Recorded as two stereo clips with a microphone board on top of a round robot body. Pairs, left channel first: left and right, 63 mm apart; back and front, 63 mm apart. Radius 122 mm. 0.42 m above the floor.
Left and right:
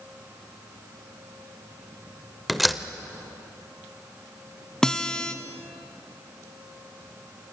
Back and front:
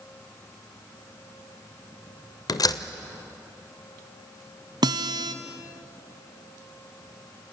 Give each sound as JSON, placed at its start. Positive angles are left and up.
{"t": 2.5, "sound": "a door slam", "azimuth_deg": 180, "distance_m": 1.2}
{"t": 4.8, "sound": "a guitar", "azimuth_deg": 10, "distance_m": 0.7}